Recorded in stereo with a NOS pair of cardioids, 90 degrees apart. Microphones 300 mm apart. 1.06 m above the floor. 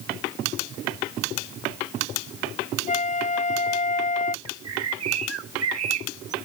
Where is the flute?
25° left.